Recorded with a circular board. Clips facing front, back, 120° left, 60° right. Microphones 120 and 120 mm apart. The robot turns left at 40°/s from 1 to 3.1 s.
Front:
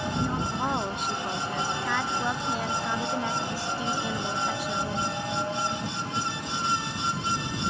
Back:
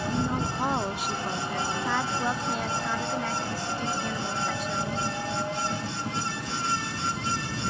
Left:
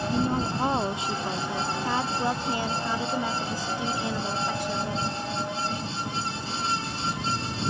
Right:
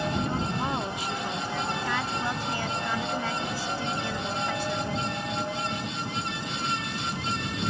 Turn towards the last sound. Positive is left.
turn(degrees=65)